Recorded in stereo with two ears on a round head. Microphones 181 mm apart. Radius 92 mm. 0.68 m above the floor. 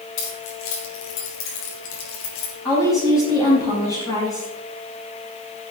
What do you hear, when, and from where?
0.2 s keys jangling: 70° left (ahead or behind), 4.5 m; by 2.5 s 80° left, 3.5 m
2.6 s a woman speaking: 20° left (ahead or behind), 5.5 m